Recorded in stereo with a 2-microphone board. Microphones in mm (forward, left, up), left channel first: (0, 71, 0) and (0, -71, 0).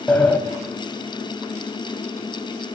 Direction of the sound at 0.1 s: 10° left (ahead or behind).